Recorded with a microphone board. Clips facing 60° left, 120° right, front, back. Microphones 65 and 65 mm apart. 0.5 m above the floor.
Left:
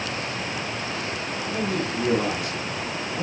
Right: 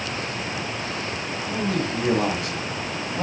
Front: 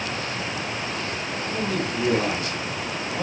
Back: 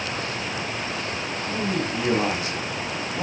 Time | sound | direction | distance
1.5 | a man speaking | 130° right | 4 m